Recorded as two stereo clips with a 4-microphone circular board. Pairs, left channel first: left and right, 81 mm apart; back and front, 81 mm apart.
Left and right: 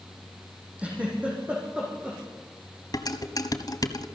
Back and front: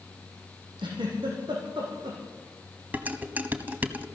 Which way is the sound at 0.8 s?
15° right.